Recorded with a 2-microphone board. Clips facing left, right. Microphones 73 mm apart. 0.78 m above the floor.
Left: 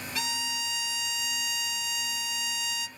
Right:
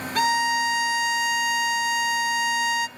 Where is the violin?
50° right (ahead or behind), 0.5 m.